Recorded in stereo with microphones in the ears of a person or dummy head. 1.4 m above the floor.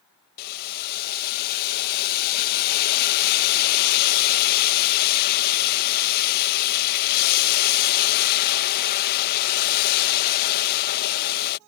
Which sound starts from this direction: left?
Boiling, at 0.4 s.